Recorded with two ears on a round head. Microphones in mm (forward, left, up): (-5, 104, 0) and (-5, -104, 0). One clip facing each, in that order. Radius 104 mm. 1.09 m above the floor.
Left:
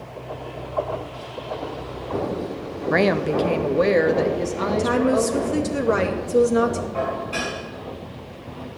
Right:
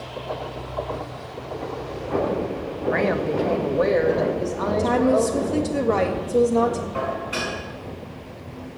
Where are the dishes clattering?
15° right (ahead or behind), 6.5 m.